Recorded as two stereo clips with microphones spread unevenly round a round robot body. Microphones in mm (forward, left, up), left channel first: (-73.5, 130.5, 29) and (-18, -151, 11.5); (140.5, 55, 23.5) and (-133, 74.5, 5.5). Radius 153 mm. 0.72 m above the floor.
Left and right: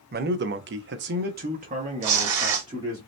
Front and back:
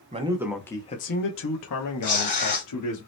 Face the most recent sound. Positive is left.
turn(degrees=-70)